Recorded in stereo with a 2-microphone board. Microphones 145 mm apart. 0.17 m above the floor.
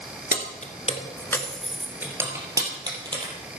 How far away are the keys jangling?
About 1.7 m.